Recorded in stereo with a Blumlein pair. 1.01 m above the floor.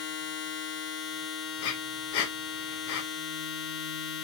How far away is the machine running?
About 0.8 m.